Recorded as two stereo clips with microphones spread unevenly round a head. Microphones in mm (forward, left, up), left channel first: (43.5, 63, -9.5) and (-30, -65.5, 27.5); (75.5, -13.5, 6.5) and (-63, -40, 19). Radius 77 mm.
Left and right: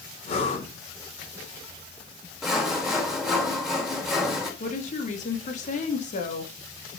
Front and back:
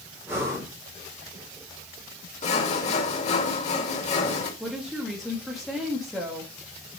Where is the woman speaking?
100° left, 2.5 m.